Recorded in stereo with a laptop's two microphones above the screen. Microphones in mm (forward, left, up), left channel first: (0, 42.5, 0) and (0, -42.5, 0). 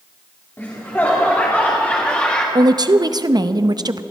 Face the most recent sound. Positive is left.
turn(degrees=-55)  # may be behind; listen again after turning